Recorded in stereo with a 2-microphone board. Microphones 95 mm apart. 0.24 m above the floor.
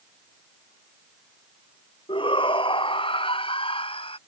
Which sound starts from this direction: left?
A shout, at 2.1 s.